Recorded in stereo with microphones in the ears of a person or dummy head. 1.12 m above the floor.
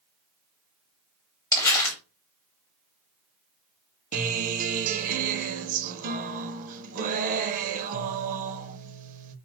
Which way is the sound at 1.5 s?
20° left (ahead or behind).